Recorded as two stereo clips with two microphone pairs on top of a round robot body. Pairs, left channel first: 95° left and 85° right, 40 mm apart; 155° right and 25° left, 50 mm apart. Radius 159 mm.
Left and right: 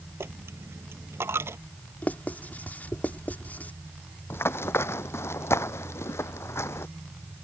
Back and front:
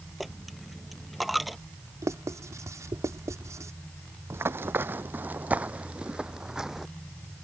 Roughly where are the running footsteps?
Left.